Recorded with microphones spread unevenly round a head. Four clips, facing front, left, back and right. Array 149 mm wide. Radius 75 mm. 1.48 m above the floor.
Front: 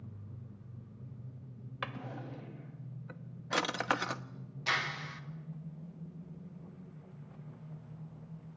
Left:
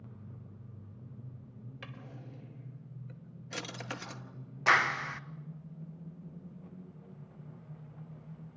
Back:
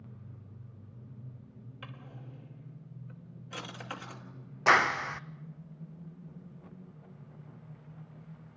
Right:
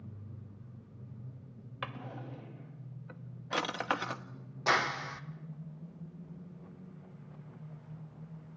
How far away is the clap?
About 1.0 m.